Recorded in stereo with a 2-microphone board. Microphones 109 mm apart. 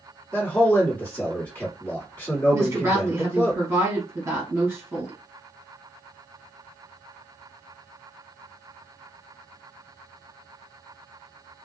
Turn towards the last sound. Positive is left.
turn(degrees=-25)  # may be behind; listen again after turning